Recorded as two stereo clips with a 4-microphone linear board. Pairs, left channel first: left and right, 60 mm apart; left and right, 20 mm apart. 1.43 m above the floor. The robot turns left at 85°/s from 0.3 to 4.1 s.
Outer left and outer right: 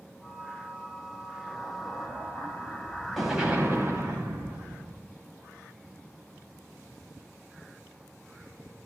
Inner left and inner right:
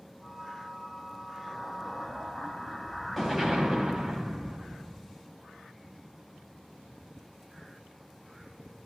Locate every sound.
1.5 s an explosion: 145° left, 6.5 m; by 5.1 s 80° right, 6.5 m